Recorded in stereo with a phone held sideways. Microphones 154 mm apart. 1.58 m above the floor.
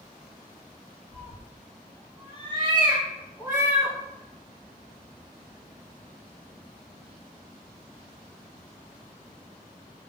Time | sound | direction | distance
1.1 | a cat meowing | 45° right (ahead or behind) | 1.4 m